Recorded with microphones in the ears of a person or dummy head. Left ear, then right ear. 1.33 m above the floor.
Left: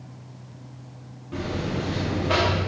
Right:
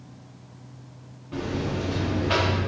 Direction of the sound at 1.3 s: Centre (ahead or behind).